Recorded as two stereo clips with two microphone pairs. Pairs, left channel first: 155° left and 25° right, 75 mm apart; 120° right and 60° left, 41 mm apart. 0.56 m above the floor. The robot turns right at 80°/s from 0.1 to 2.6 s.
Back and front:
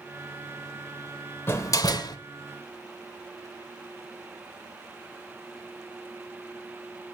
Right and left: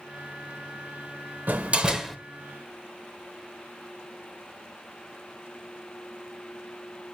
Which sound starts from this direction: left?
A door slam, at 1.5 s.